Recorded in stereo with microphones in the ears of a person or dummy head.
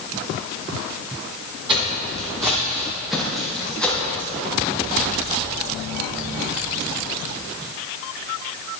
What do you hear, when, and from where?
1.7 s footsteps: 25° right (ahead or behind), 1.8 m; by 4.3 s 15° left (ahead or behind), 3 m